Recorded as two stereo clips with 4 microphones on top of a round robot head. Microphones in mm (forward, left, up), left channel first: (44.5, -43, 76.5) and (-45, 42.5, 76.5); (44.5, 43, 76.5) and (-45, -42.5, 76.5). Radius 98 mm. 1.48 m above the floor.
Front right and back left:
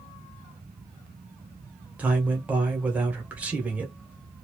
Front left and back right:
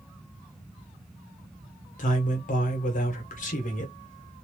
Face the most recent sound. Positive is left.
turn(degrees=55)